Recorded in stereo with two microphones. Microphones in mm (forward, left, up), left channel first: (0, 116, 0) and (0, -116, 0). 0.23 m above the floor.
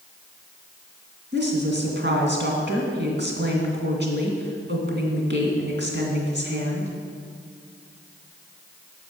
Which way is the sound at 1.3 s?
50° right (ahead or behind).